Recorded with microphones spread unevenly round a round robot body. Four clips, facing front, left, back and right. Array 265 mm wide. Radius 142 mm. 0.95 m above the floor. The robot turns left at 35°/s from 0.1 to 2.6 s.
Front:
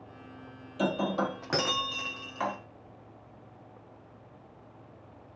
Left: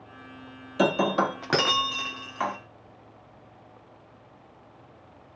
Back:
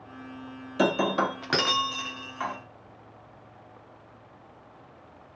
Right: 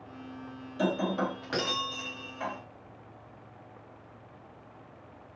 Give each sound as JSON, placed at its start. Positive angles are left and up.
{"t": 0.8, "sound": "breaking glass", "azimuth_deg": 135, "distance_m": 1.2}